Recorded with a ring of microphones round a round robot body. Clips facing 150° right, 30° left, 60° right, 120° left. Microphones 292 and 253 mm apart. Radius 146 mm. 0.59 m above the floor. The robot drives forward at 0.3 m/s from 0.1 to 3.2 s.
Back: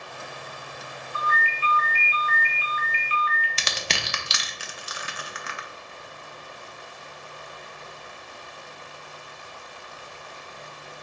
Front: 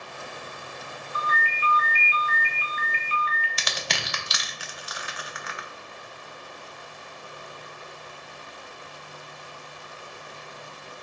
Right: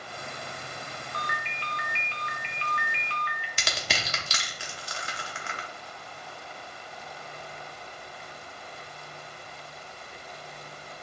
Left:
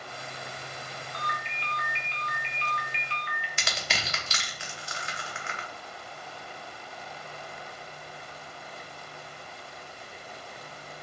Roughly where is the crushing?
Right.